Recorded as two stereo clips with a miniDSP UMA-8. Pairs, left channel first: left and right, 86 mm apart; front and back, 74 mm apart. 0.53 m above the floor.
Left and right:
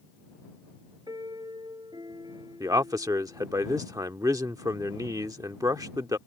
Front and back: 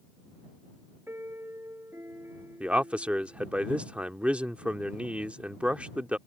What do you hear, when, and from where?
1.1 s a piano: 125° right
2.6 s a man speaking: 110° right